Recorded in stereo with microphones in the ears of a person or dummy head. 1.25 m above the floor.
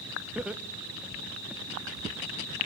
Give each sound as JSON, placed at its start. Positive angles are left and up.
{"t": 0.3, "sound": "laughter", "side_deg": -5, "distance_m": 1.1}